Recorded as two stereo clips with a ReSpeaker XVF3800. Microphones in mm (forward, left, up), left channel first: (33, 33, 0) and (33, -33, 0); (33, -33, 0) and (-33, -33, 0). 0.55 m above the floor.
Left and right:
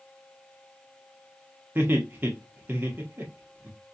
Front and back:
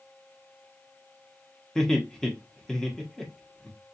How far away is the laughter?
About 1.0 m.